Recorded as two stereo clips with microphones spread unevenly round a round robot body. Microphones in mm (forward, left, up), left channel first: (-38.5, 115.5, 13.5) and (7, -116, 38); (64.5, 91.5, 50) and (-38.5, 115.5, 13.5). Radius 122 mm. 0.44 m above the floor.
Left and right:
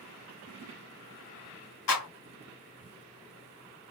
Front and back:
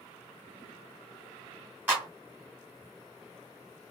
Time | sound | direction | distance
1.9 | a clap | 100° left | 3 m